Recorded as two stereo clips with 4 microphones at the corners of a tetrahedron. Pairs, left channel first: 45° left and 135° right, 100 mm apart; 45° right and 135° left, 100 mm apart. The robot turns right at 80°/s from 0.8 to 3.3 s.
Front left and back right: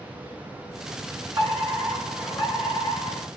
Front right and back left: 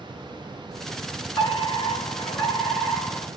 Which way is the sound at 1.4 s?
85° right.